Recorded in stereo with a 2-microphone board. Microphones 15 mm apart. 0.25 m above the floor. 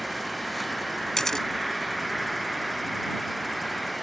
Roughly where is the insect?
Centre.